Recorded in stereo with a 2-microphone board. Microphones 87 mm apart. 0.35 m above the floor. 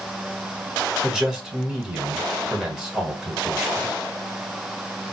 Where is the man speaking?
5° right (ahead or behind), 1.3 m.